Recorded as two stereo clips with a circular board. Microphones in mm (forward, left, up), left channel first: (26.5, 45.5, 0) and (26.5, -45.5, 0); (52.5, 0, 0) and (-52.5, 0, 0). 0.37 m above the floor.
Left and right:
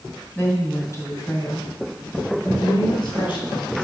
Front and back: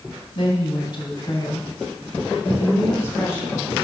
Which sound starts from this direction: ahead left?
A woman speaking, at 0.3 s.